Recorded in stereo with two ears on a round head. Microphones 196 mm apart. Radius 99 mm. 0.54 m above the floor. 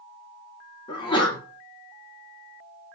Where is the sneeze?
20° left (ahead or behind), 0.8 m.